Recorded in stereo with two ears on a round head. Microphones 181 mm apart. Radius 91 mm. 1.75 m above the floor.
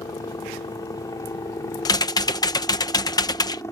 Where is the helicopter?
20° left (ahead or behind); by 3.7 s 15° left (ahead or behind).